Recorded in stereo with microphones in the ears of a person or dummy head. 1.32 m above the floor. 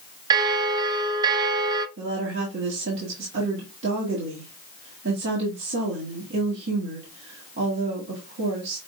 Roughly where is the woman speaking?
Right.